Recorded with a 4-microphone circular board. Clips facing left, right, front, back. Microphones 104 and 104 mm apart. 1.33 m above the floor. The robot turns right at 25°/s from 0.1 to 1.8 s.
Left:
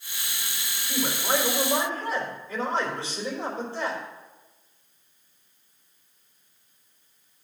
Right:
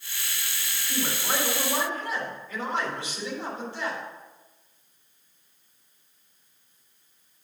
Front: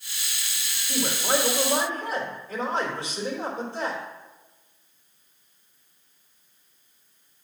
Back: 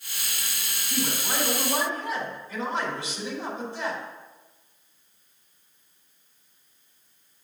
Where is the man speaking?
10° left, 4 m; by 4.0 s 35° left, 4 m.